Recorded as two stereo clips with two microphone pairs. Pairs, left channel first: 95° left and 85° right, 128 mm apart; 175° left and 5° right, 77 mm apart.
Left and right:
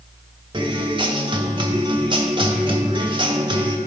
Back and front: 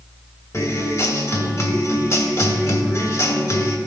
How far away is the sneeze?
No sneeze in this recording.